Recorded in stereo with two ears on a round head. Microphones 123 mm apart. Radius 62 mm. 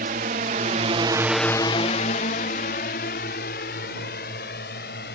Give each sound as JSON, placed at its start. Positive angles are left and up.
{"t": 0.0, "sound": "a drone", "side_deg": -70}